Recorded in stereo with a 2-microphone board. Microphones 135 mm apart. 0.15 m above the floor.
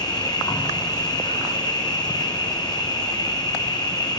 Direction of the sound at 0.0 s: 30° left (ahead or behind).